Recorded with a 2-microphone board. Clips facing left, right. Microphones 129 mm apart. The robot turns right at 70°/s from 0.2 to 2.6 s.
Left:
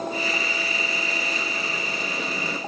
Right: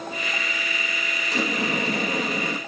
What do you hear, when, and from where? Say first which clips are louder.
1.3 s a sliding door: right 5 dB; 100° right, 1.7 m; by 2.6 s 10° right, 1.7 m